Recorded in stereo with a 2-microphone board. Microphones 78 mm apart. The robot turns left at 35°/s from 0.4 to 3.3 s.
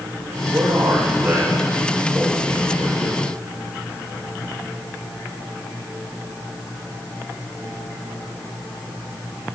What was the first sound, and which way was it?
A man speaking, 145° right.